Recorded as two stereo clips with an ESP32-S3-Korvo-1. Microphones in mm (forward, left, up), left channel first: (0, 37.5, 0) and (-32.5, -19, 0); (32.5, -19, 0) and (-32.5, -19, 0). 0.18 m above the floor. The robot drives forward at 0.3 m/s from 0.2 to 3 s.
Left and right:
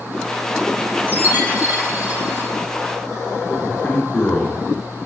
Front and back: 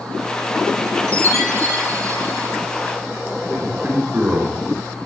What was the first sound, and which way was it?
A chime, 170° right.